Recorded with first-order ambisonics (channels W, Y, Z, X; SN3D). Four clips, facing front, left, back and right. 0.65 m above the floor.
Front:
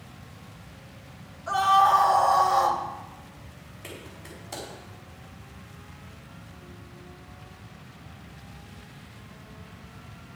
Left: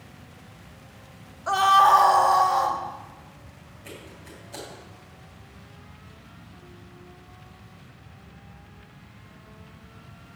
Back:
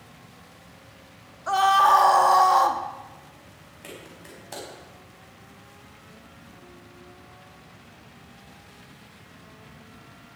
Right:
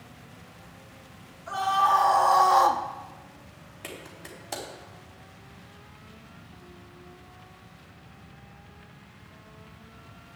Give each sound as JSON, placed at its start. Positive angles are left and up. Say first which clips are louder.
{"t": 1.5, "sound": "a scream", "louder": "left 6 dB, back 2 dB", "azimuth_deg": 120, "distance_m": 1.2}
{"t": 3.8, "sound": "a clap", "louder": "right 2 dB, even", "azimuth_deg": -100, "distance_m": 4.0}